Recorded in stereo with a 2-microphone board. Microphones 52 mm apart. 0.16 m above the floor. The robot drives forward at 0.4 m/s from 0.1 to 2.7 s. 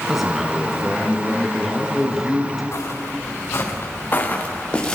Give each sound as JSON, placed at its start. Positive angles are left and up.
{"t": 0.1, "sound": "a man speaking", "side_deg": -5, "distance_m": 2.0}
{"t": 2.7, "sound": "footsteps", "side_deg": 60, "distance_m": 4.5}